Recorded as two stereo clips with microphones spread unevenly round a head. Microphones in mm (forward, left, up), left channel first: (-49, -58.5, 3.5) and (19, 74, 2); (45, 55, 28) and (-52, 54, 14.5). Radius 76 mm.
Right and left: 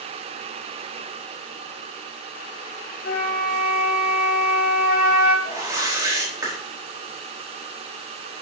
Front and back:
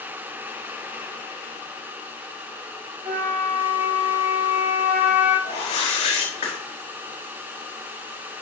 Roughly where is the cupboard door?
I don't hear a cupboard door.